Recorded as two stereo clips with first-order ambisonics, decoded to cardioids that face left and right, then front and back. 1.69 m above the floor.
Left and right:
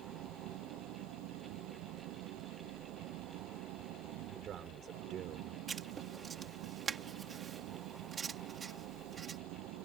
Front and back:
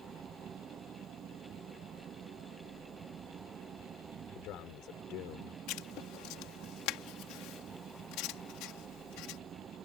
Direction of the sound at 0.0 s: 120° right.